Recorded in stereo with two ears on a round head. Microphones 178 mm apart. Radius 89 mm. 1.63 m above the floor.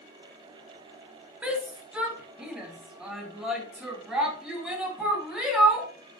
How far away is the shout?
About 2.0 m.